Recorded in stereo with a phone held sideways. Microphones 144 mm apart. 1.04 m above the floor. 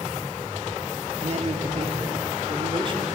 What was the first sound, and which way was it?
A man speaking, 50° right (ahead or behind).